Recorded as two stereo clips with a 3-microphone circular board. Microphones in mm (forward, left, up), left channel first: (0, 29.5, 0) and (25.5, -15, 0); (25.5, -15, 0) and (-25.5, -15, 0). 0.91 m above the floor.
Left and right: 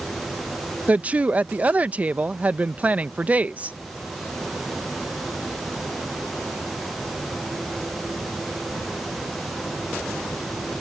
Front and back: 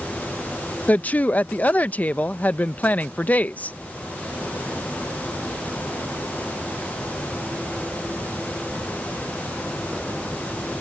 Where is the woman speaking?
25° right.